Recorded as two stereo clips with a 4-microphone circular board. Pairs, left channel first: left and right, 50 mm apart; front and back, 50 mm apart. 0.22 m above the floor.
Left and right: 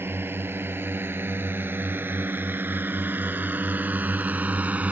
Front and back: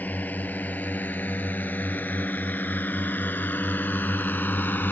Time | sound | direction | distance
0.0 | a drone | 55° right | ?